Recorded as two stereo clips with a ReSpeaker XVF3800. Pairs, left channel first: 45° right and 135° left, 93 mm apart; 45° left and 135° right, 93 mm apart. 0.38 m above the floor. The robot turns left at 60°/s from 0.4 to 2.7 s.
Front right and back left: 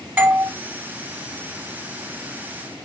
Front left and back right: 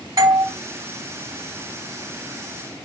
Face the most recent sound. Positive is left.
turn(degrees=55)